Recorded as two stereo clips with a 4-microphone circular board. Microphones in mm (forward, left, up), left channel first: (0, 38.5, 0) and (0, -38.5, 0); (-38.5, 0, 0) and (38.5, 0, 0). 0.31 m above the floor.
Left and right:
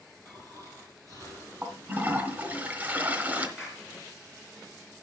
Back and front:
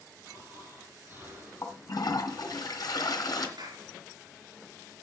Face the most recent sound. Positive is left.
turn(degrees=-10)